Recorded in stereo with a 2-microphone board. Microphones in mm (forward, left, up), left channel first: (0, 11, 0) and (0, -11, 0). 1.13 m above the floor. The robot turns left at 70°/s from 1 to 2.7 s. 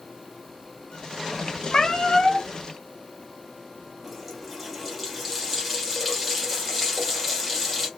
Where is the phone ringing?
I don't hear a phone ringing.